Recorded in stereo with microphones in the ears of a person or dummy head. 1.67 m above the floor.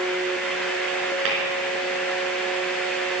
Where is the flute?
I don't hear a flute.